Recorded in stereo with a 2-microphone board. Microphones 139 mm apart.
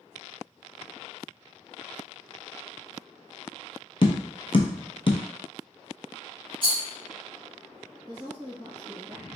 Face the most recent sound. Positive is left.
turn(degrees=-35)  # may be behind; listen again after turning